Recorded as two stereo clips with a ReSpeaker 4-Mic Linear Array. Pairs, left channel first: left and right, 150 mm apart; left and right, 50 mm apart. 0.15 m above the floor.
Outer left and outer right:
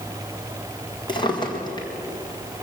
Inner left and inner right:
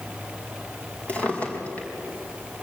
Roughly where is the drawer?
Left.